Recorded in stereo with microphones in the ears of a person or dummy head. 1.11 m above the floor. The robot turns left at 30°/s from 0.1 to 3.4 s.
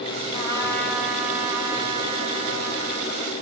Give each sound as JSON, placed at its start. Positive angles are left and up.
{"t": 0.3, "sound": "a trumpet", "azimuth_deg": 25, "distance_m": 7.5}